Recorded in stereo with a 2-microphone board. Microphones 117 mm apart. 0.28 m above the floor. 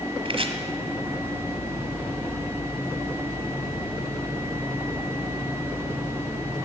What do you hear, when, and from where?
0.2 s chopping: 55° right (ahead or behind), 1.1 m